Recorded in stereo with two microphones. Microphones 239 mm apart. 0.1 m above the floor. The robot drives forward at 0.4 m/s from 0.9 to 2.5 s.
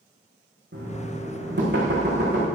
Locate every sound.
0.7 s knocking: 50° right (ahead or behind), 5 m; by 2.5 s 45° right (ahead or behind), 5.5 m